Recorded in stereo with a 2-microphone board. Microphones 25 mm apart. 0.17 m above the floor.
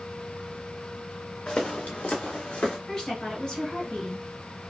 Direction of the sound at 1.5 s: 35° left (ahead or behind).